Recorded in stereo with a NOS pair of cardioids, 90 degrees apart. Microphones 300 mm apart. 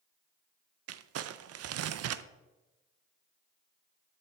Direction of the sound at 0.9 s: 55° right.